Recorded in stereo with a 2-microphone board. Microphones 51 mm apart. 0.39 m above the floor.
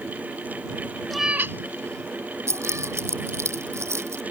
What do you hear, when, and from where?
1.1 s a cat meowing: 5° left (ahead or behind); by 3.0 s 70° right (ahead or behind)
2.5 s keys jangling: 65° right (ahead or behind)